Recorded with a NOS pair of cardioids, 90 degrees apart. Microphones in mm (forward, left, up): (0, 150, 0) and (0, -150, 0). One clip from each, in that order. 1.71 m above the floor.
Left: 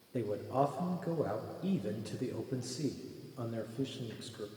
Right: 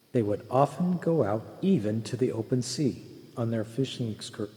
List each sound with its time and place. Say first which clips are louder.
0.1 s a man speaking: right 9 dB; 55° right, 0.7 m